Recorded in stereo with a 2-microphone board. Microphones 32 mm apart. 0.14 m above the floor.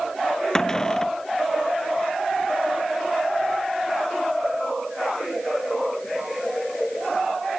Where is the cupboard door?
20° left (ahead or behind).